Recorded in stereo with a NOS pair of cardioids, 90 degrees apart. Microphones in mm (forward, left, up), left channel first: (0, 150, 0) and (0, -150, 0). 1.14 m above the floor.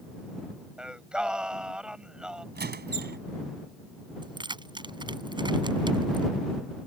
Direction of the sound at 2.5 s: 30° right.